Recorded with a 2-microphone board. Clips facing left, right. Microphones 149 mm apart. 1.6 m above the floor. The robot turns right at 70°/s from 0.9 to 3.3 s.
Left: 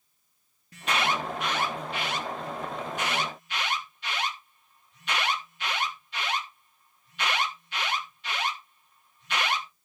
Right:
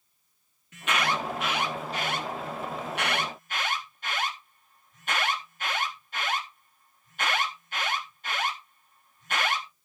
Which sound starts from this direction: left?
An alarm, at 0.7 s.